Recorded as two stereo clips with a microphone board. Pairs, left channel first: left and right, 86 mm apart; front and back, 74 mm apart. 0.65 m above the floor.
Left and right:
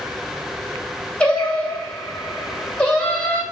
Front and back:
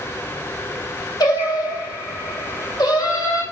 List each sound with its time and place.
1.2 s singing: 15° left, 2.5 m